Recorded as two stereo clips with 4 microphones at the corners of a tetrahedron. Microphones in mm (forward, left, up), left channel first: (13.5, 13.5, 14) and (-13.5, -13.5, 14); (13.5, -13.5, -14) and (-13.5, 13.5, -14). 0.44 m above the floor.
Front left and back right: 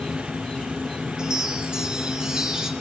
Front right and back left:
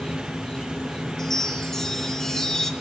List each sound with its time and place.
0.0 s an insect: 5° left, 0.9 m
1.2 s a chime: 110° right, 0.9 m